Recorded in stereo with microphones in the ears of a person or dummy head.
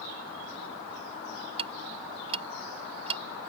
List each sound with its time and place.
1.6 s ticking: 30° right (ahead or behind)